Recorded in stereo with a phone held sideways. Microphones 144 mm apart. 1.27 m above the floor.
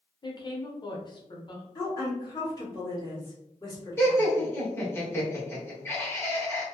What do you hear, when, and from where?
0.2 s a woman speaking: 35° left (ahead or behind), 0.8 m
1.8 s a woman speaking: 25° left (ahead or behind), 1.8 m
4.0 s laughter: 15° left (ahead or behind), 1.5 m